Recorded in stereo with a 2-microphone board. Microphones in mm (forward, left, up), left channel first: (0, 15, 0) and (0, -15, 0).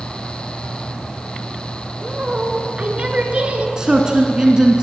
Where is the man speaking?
20° right (ahead or behind), 1.1 m.